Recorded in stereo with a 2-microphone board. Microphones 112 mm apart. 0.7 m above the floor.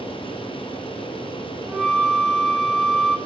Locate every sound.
1.7 s a flute: 5° right (ahead or behind), 3 m